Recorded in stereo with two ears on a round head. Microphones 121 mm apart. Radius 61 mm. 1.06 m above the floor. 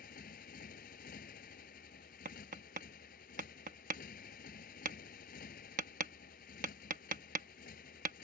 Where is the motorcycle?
70° left (ahead or behind).